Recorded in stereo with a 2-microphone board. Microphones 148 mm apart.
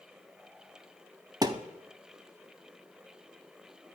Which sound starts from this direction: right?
A thud, at 1.4 s.